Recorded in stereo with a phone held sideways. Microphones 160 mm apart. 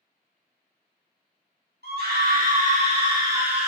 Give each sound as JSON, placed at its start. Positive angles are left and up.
{"t": 1.8, "sound": "a scream", "side_deg": -75, "distance_m": 1.1}